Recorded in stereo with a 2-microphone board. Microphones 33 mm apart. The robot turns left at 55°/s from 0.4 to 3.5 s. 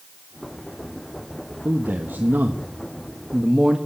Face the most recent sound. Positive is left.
turn(degrees=-160)